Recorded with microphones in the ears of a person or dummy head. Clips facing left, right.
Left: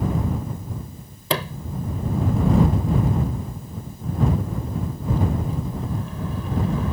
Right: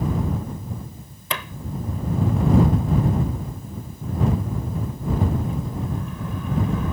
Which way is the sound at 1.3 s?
25° left (ahead or behind).